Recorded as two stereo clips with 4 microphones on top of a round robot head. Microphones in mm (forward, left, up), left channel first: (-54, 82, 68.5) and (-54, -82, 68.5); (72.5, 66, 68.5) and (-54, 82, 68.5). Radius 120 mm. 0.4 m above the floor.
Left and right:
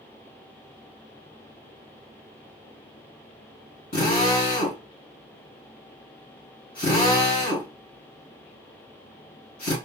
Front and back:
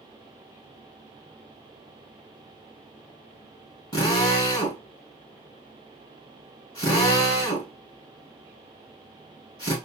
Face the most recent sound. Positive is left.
turn(degrees=55)